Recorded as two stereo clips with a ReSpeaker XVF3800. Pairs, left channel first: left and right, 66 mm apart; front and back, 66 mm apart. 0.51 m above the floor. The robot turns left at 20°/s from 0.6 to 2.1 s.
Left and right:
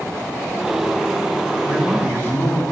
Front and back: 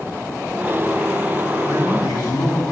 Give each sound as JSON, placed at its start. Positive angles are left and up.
{"t": 1.6, "sound": "a man speaking", "azimuth_deg": 45, "distance_m": 4.0}